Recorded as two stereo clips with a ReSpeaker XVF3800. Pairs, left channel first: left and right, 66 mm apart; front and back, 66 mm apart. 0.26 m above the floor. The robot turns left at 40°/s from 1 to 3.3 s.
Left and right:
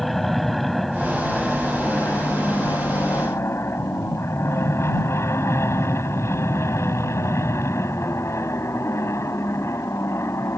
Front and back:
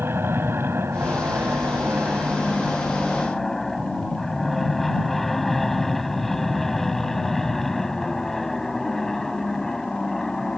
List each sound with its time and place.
0.0 s an aircraft: straight behind; by 10.6 s 80° left